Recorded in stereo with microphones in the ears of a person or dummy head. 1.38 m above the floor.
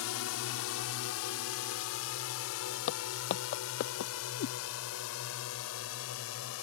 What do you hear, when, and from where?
0.0 s a drone: 65° left (ahead or behind); by 6.6 s 70° left (ahead or behind)
2.9 s footsteps: 45° left (ahead or behind); by 4.1 s 50° left (ahead or behind)
4.4 s a cat meowing: 70° left (ahead or behind)